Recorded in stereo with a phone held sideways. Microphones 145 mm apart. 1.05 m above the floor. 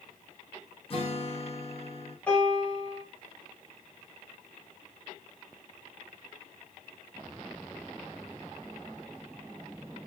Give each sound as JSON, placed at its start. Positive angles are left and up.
{"t": 0.9, "sound": "a guitar", "side_deg": 40, "distance_m": 0.9}
{"t": 2.3, "sound": "a piano", "side_deg": 10, "distance_m": 2.0}